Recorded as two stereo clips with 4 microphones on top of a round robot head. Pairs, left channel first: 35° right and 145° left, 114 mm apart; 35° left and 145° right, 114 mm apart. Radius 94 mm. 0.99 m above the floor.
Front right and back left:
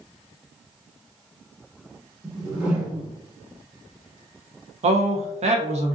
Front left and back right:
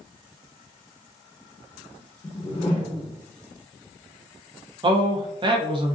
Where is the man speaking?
170° left, 0.8 m.